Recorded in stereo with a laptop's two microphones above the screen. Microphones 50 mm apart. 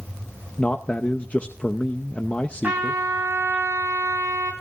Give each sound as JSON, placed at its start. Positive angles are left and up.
{"t": 0.6, "sound": "a man speaking", "side_deg": 30, "distance_m": 0.6}
{"t": 2.6, "sound": "a trumpet", "side_deg": -35, "distance_m": 4.5}